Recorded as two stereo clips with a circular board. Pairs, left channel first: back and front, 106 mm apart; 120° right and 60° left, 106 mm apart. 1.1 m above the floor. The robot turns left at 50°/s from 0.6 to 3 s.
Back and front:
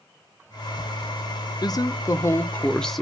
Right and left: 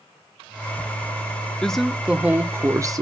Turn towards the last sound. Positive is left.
turn(degrees=90)